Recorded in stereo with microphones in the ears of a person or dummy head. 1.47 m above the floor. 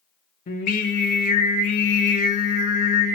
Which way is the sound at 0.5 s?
45° left (ahead or behind).